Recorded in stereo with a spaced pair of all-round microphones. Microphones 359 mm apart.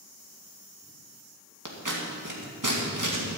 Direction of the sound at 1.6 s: 60° right (ahead or behind).